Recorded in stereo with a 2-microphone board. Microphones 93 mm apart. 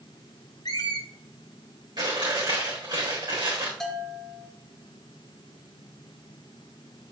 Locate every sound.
0.7 s a squeak: 50° left (ahead or behind), 1.6 m
2.0 s chewing: 50° right (ahead or behind), 4 m
3.8 s a bell: 5° left (ahead or behind), 2 m